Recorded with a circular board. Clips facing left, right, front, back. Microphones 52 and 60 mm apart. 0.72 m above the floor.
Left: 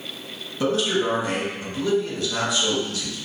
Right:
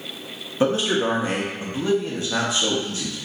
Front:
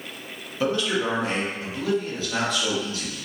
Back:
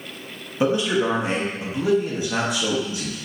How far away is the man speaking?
About 0.8 m.